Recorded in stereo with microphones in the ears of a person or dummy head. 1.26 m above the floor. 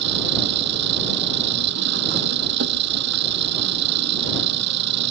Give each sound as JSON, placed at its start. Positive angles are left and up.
{"t": 0.0, "sound": "an engine running", "side_deg": -65}